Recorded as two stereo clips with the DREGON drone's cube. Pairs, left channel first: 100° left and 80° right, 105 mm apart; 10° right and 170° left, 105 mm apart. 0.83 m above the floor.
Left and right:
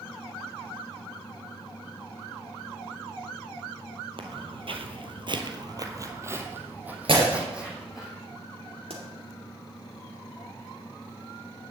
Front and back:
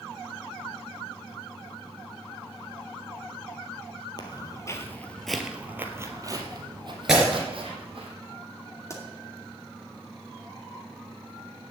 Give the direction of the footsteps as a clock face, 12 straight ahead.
2 o'clock.